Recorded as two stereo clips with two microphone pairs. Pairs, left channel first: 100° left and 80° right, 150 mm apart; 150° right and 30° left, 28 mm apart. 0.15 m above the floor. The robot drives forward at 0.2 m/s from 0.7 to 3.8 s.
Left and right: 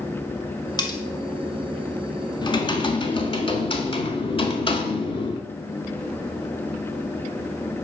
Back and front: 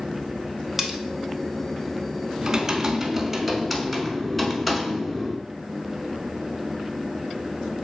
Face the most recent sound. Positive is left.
turn(degrees=120)